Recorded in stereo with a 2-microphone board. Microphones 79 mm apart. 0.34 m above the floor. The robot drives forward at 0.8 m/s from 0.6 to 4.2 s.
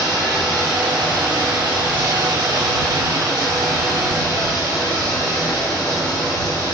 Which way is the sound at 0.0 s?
65° right (ahead or behind).